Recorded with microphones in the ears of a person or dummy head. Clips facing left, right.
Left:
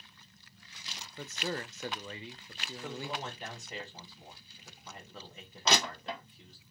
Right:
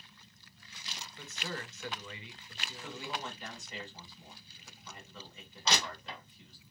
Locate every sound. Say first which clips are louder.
1.2 s a man speaking: left 5 dB; 40° left (ahead or behind), 0.5 m
2.8 s a man speaking: left 2 dB; 40° left (ahead or behind), 1.6 m
5.7 s crushing: left 4 dB; 50° left (ahead or behind), 0.9 m